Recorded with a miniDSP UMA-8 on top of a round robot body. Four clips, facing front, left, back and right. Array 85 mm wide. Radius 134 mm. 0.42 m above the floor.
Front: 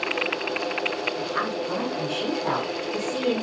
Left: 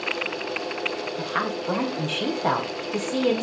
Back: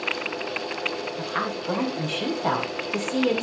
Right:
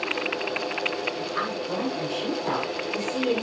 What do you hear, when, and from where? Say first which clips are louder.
1.2 s a woman speaking: left 2 dB, even; 115° left, 4 m